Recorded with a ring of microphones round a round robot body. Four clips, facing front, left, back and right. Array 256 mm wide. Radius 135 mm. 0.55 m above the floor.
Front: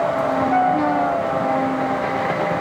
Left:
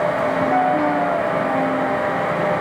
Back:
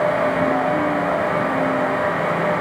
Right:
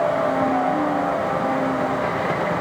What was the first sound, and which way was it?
Only background noise.